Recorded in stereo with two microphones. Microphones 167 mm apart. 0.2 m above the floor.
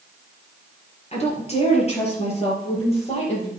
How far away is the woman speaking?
About 4.5 m.